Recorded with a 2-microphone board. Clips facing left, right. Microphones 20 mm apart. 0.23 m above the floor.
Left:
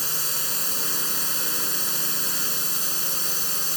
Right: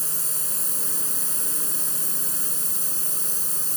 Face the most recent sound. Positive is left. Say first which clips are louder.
# left 5 dB
turn(degrees=45)  # may be behind; listen again after turning